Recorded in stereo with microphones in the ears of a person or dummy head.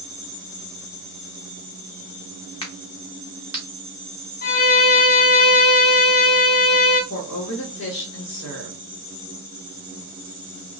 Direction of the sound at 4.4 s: 50° left (ahead or behind).